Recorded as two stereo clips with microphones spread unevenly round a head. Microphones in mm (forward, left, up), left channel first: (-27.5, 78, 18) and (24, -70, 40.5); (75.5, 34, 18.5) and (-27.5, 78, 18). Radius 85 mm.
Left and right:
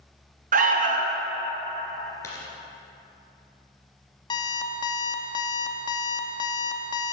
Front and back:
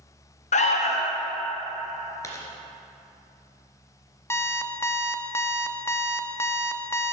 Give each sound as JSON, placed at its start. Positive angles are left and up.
{"t": 0.5, "sound": "an alarm", "azimuth_deg": -30, "distance_m": 1.0}
{"t": 2.2, "sound": "a dropped coin", "azimuth_deg": 35, "distance_m": 2.5}
{"t": 4.3, "sound": "an alarm clock", "azimuth_deg": 45, "distance_m": 0.8}